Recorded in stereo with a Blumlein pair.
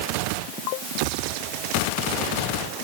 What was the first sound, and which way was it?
Only background noise.